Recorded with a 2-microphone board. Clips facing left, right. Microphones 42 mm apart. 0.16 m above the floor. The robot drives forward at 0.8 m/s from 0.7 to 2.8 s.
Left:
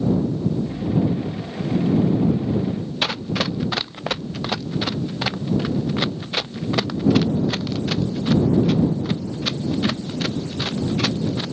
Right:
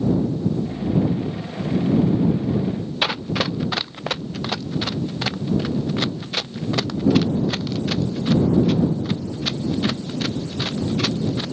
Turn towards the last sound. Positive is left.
turn(degrees=15)  # may be behind; listen again after turning